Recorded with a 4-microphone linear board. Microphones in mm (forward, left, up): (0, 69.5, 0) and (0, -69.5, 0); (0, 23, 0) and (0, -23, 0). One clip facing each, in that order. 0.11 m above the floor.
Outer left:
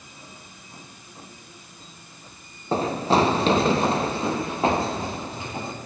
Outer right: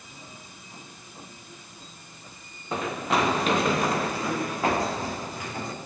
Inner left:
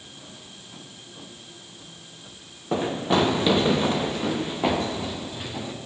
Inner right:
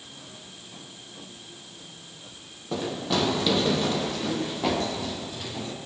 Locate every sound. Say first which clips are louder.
2.7 s running footsteps: outer left 5 dB, inner left 5 dB; 30° left (ahead or behind), 1.5 m; by 5.7 s 25° left (ahead or behind), 3.5 m